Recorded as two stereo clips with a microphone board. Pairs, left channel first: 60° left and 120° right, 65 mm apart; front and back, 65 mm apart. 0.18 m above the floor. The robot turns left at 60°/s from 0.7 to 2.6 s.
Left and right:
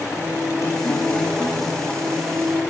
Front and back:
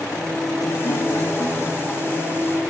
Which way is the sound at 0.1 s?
20° left.